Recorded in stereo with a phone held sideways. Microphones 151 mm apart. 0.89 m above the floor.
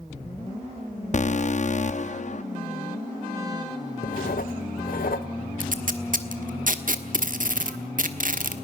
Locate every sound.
1.1 s an alarm: 50° left (ahead or behind), 0.7 m
4.0 s writing: 70° left (ahead or behind), 1.0 m
5.6 s tape being pulled: 65° right (ahead or behind), 1.4 m